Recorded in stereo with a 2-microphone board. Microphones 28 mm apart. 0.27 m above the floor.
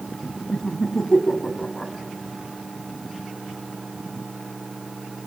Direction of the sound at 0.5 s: 20° left (ahead or behind).